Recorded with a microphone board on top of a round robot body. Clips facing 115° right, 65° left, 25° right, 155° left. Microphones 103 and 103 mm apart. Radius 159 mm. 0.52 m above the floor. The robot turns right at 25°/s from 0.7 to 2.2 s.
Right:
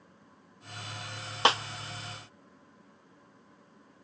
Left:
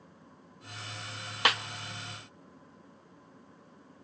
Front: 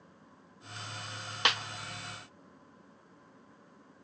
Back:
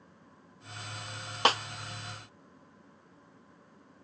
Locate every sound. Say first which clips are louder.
1.4 s a snare drum: right 4 dB, back 6 dB; 165° right, 0.8 m; by 1.6 s 160° right, 0.8 m